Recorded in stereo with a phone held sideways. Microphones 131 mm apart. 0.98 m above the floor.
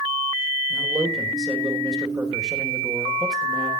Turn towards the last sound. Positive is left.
turn(degrees=-30)  # may be behind; listen again after turning